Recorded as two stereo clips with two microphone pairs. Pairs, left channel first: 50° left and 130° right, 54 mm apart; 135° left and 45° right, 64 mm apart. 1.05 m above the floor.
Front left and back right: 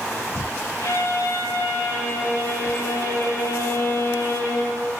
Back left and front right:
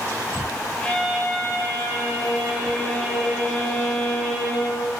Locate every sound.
0.8 s a violin: 70° left, 5 m